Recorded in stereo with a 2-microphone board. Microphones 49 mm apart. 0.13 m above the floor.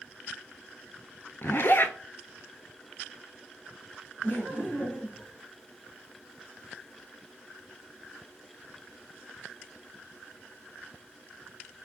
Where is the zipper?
50° left (ahead or behind), 0.5 m.